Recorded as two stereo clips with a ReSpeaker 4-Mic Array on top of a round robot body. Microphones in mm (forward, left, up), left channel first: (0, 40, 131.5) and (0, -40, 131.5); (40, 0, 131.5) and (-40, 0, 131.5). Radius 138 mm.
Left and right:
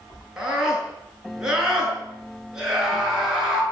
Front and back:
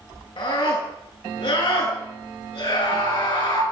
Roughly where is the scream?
Ahead.